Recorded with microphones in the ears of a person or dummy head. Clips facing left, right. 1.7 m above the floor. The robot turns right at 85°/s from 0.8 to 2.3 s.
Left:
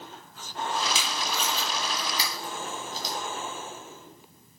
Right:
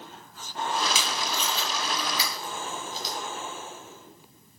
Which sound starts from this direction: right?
Tape being pulled, at 0.9 s.